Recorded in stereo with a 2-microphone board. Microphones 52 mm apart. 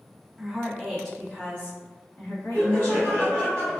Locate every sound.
0.4 s a woman speaking: 10° right (ahead or behind), 1.3 m; by 3.3 s 50° left (ahead or behind), 1.9 m
2.5 s laughter: 25° left (ahead or behind), 1.6 m